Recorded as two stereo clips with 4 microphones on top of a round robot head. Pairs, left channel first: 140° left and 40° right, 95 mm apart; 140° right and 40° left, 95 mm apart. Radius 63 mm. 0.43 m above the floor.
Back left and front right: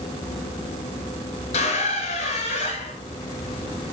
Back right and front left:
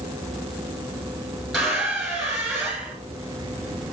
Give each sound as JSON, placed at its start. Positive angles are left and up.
{"t": 1.5, "sound": "a squeak", "azimuth_deg": 135, "distance_m": 4.0}